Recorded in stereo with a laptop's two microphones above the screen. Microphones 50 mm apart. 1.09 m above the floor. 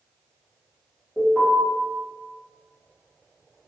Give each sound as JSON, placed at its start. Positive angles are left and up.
{"t": 1.2, "sound": "an alarm", "side_deg": -10, "distance_m": 1.4}